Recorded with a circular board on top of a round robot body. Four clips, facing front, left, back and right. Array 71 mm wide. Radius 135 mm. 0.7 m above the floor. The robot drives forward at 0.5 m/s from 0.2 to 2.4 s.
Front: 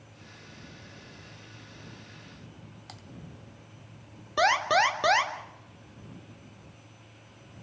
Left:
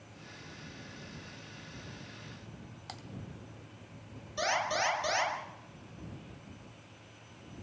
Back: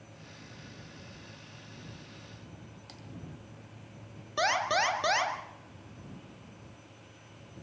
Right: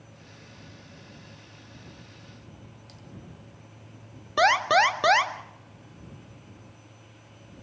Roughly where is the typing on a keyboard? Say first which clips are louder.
Left 4 dB, front 2 dB; ahead left.